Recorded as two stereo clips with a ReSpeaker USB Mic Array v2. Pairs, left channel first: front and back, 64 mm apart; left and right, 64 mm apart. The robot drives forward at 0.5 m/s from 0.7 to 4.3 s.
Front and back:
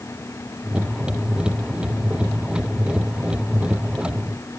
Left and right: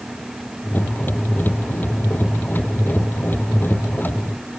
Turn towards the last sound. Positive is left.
No sound to turn to.